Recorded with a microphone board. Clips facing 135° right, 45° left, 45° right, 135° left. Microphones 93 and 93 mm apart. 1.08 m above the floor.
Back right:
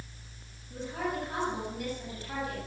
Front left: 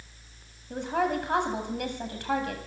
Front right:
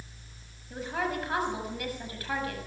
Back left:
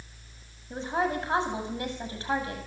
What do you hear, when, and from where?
0.7 s a woman speaking: 70° left, 7.5 m